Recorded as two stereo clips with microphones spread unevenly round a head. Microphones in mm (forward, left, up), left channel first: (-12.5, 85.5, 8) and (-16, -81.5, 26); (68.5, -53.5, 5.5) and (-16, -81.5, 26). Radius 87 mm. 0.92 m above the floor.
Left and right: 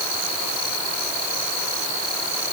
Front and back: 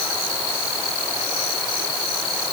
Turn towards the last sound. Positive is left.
No sound to turn to.